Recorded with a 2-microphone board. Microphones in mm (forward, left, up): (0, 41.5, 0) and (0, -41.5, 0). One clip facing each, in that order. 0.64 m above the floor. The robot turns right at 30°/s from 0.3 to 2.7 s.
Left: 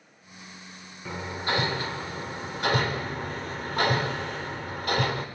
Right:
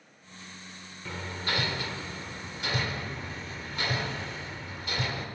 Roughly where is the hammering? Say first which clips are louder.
Left 4 dB; centre.